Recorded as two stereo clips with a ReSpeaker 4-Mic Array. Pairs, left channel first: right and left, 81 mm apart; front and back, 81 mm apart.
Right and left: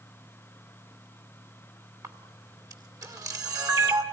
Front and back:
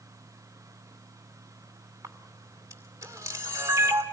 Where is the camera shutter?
130° left, 2.5 m.